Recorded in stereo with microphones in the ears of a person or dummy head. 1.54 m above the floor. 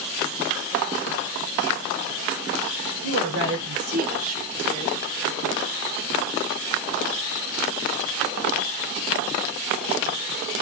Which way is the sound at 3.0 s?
70° right (ahead or behind).